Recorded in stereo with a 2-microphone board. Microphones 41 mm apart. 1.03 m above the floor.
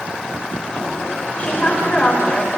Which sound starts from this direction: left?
A woman speaking, at 1.4 s.